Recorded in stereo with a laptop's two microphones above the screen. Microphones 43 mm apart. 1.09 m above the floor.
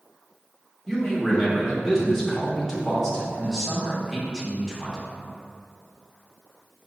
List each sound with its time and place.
0.9 s a man speaking: centre (ahead or behind), 1.1 m